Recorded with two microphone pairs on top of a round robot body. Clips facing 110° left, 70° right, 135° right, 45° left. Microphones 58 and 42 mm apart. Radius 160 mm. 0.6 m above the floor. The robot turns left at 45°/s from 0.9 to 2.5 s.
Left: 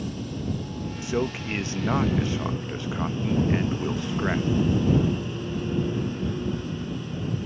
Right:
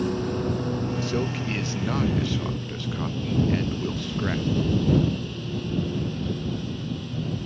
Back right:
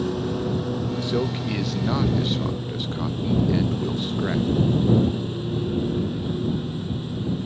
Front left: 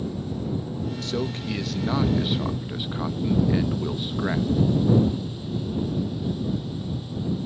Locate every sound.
0.0 s a lawn mower: 110° right; by 7.5 s straight behind
1.0 s a man speaking: 155° left; by 4.5 s 85° left